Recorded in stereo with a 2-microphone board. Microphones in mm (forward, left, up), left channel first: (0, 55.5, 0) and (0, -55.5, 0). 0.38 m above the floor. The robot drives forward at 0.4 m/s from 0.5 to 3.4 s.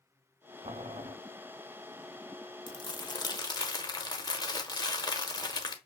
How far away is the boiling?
About 0.5 m.